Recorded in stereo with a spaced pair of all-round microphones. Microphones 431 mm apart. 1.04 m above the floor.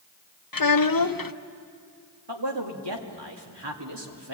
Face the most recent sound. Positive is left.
turn(degrees=-70)  # may be behind; listen again after turning